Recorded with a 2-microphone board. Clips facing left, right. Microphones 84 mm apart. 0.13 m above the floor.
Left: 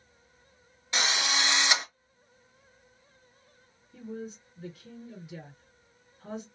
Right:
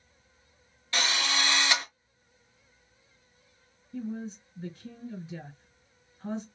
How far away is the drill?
About 0.8 m.